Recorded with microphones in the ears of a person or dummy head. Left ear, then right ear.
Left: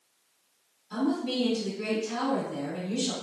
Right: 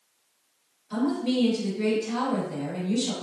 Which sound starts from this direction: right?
A woman speaking, at 0.9 s.